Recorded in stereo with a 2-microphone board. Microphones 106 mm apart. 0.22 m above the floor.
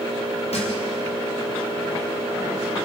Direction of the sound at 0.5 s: 75° left (ahead or behind).